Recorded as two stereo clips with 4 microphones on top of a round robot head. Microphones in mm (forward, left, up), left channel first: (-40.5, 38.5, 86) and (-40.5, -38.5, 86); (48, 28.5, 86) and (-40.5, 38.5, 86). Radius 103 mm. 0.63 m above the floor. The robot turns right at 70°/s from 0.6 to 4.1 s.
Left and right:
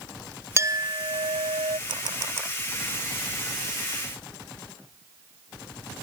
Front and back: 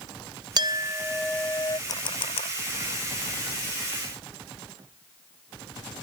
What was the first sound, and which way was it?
A clink, 145° right.